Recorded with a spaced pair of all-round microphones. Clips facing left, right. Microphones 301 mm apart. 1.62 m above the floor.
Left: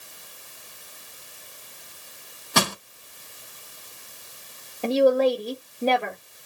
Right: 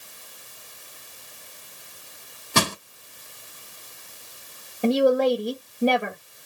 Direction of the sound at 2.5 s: 30° right (ahead or behind).